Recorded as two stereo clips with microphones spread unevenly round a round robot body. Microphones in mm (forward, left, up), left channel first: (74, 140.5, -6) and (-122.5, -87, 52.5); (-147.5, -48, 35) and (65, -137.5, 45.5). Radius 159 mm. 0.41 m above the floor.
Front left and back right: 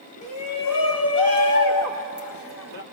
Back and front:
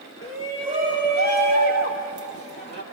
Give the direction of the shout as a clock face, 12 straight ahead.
10 o'clock.